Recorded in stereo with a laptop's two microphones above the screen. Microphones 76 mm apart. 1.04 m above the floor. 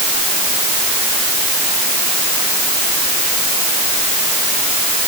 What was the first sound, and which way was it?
Only background noise.